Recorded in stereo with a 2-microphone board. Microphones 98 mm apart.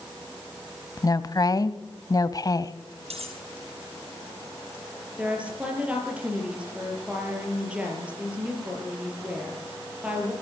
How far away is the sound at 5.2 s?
About 5.5 m.